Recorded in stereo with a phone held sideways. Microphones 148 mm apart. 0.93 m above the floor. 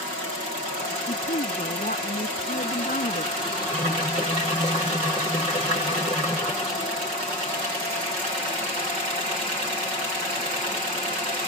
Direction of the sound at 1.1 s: 70° left (ahead or behind).